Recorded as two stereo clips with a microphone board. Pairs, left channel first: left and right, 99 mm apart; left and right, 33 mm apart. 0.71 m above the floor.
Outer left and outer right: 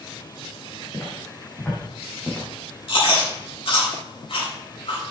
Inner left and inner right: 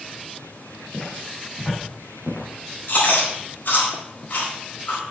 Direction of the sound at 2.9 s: 60° left (ahead or behind).